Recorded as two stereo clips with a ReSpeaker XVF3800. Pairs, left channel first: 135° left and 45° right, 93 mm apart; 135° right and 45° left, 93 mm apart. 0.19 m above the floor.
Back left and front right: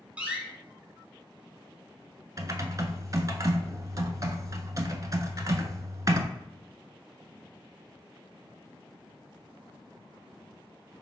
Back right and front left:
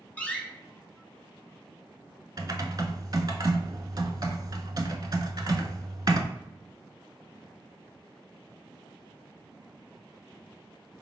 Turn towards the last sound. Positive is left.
turn(degrees=5)